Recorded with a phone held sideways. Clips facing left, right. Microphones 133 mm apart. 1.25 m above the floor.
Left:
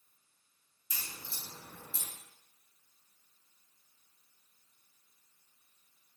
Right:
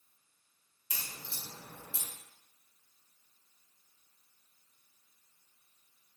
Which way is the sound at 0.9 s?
70° right (ahead or behind).